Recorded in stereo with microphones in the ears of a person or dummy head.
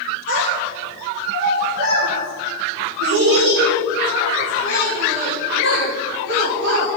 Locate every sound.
0.3 s a child speaking: 75° right (ahead or behind), 5 m; by 6.9 s 55° right (ahead or behind), 4 m